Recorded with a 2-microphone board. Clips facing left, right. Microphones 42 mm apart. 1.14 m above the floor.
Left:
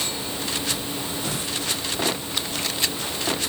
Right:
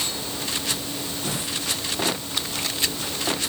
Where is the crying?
I don't hear crying.